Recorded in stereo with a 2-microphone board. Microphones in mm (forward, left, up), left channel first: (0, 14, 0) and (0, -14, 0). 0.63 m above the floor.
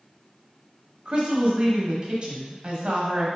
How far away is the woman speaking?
About 1.0 m.